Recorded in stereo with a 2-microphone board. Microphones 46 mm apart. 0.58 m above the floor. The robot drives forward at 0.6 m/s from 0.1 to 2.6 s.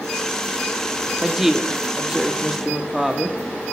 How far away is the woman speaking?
About 1.0 m.